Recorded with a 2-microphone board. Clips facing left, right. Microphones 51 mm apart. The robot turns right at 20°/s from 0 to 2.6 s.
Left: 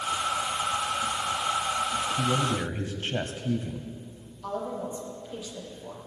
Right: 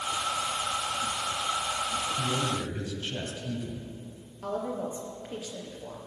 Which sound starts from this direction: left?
A man speaking, at 2.2 s.